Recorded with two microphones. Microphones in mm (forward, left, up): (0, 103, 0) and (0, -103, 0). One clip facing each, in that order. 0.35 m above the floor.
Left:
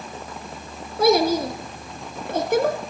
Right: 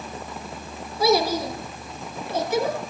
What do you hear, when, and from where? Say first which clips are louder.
1.0 s a child speaking: left 3 dB; 60° left (ahead or behind), 2.5 m